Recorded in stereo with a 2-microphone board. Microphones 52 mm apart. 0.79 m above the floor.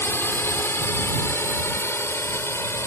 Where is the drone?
50° left (ahead or behind); by 2.9 s 55° left (ahead or behind).